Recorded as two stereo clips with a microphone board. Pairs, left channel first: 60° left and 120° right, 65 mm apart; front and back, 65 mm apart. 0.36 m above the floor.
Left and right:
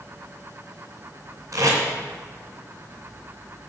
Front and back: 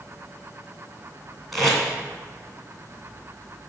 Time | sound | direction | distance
1.5 | tape being pulled | 90° right | 2.5 m